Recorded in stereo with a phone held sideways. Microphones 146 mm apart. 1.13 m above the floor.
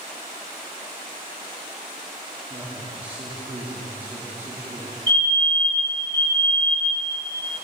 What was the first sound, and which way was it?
A man speaking, 30° right (ahead or behind).